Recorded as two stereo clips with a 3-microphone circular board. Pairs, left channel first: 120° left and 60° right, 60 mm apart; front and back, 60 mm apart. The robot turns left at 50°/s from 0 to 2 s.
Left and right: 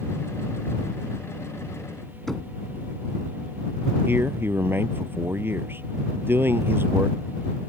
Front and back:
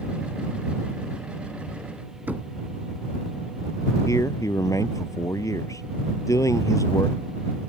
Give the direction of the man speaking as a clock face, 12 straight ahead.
12 o'clock.